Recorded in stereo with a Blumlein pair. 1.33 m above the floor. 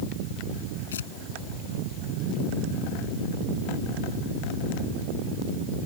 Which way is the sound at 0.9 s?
65° left.